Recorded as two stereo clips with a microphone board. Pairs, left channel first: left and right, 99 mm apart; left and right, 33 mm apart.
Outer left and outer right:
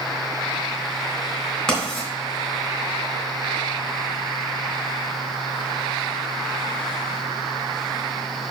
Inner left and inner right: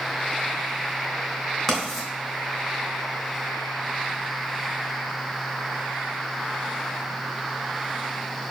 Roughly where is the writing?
Centre.